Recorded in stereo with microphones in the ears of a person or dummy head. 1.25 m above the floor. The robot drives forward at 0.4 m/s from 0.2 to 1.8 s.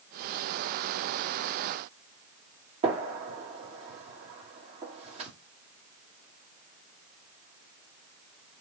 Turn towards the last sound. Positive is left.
turn(degrees=-40)  # may be behind; listen again after turning